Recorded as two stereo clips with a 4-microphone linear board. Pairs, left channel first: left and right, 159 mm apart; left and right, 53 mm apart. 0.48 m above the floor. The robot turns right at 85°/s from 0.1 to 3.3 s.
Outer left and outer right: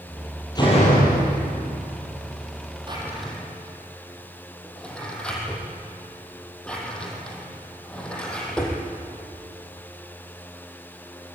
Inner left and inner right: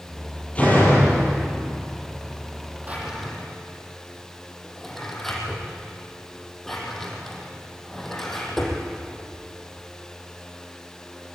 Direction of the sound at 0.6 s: 25° left.